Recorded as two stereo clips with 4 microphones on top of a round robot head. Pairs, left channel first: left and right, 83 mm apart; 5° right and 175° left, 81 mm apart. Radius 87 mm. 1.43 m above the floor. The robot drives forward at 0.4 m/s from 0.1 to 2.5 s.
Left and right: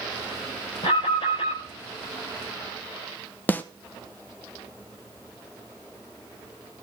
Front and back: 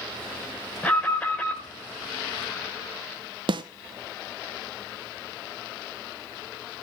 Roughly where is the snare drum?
Behind.